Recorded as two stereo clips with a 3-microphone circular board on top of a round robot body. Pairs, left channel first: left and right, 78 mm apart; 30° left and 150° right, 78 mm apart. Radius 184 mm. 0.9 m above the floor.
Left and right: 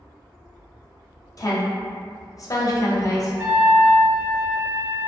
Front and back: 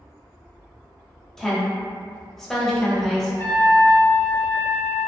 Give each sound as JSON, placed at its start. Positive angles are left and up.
{"t": 1.4, "sound": "a woman speaking", "azimuth_deg": 115, "distance_m": 0.9}
{"t": 3.4, "sound": "a trumpet", "azimuth_deg": -20, "distance_m": 0.9}